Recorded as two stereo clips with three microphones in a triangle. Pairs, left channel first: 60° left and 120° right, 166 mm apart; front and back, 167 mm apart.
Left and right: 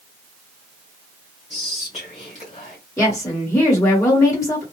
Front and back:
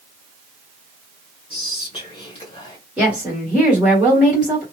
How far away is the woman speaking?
About 1.4 m.